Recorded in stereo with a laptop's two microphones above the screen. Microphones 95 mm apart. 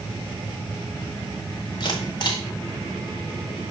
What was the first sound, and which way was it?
A camera shutter, 45° left (ahead or behind).